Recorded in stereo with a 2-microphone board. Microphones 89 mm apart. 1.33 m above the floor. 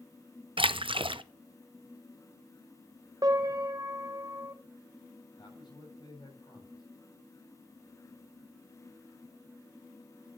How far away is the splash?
About 0.5 m.